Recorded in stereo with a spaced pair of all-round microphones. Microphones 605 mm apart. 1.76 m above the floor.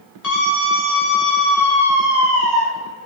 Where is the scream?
85° left, 2.5 m; by 2.6 s 70° left (ahead or behind), 4 m.